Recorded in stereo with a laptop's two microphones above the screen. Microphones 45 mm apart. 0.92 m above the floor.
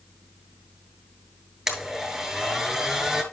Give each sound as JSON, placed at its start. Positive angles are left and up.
{"t": 1.7, "sound": "a blender", "side_deg": -5, "distance_m": 3.0}